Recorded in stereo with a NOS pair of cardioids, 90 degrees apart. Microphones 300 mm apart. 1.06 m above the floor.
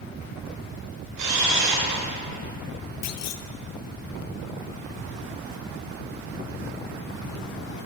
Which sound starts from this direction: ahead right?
A camera shutter, at 1.2 s.